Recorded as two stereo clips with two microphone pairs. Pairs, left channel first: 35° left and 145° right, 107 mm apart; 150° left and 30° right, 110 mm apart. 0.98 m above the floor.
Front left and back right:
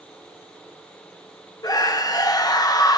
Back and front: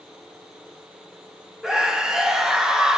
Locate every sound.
1.6 s a scream: 50° left, 0.7 m